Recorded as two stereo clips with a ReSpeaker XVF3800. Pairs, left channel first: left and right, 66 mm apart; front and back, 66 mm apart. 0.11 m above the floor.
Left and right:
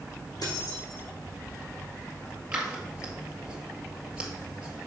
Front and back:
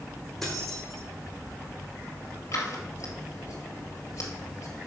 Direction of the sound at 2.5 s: 20° right.